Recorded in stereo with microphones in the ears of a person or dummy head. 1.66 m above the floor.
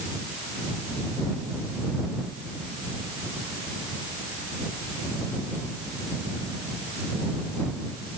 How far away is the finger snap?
I don't hear a finger snap.